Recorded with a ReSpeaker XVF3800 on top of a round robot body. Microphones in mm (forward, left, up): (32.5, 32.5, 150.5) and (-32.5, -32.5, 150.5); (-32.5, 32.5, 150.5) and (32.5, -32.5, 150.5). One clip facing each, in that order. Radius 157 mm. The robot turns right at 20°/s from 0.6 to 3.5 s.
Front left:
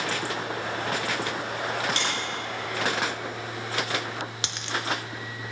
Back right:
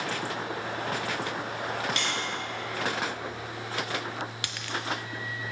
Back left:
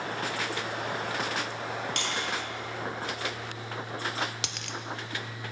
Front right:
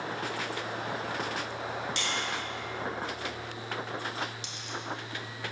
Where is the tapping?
100° left, 3.5 m; by 2.1 s 105° left, 3.5 m.